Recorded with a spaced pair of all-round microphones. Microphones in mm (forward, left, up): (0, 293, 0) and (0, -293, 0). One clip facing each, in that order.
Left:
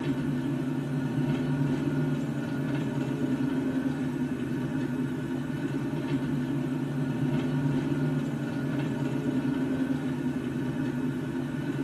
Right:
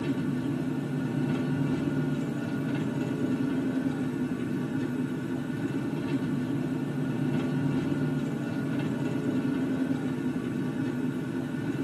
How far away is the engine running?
About 2.5 m.